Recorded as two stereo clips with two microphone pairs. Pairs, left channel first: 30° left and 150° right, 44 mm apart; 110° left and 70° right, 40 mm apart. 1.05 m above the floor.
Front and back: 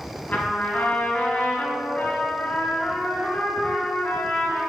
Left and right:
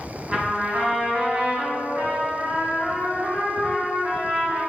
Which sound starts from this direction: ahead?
A trumpet, at 0.3 s.